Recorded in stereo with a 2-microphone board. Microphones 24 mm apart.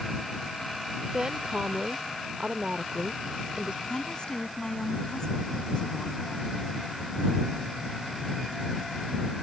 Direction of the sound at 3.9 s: 35° left (ahead or behind).